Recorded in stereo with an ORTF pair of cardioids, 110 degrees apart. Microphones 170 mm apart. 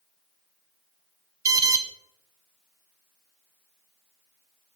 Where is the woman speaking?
I don't hear a woman speaking.